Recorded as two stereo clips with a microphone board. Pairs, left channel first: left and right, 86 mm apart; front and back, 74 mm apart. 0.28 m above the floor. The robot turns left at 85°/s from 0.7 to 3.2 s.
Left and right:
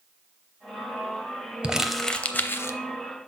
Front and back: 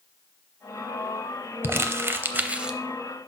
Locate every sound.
1.6 s crumpling: 155° right, 0.6 m; by 2.8 s 105° left, 0.6 m